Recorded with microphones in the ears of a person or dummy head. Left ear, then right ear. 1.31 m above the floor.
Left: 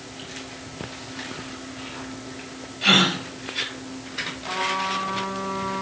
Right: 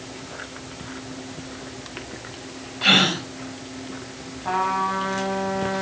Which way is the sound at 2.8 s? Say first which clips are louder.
Right 1 dB; 5° right (ahead or behind).